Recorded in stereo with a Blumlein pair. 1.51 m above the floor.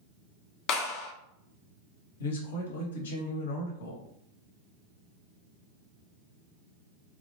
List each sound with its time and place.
0.7 s a clap: 35° left, 0.6 m
2.2 s a man speaking: 60° left, 1.0 m